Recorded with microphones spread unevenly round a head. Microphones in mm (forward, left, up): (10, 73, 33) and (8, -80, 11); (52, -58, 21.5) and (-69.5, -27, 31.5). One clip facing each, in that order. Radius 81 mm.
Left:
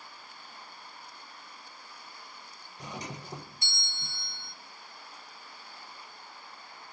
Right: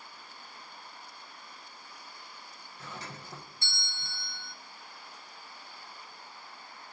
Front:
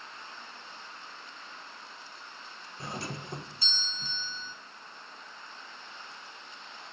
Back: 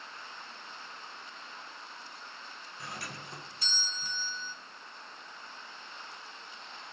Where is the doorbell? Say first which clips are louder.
Left 4 dB, front 6 dB; 15° left, 0.7 m.